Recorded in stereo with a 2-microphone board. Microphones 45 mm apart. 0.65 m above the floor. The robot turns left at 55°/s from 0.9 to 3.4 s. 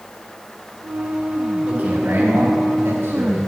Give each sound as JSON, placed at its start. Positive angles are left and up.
{"t": 1.6, "sound": "a man speaking", "azimuth_deg": -15, "distance_m": 3.5}